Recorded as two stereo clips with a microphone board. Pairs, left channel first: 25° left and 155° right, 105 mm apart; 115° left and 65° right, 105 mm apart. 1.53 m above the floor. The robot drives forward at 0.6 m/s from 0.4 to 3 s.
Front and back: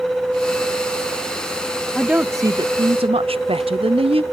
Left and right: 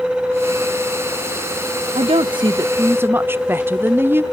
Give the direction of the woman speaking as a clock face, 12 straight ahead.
2 o'clock.